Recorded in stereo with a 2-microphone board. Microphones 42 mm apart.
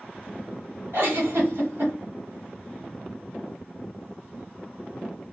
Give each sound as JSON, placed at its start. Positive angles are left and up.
{"t": 0.9, "sound": "a giggle", "side_deg": -70, "distance_m": 1.4}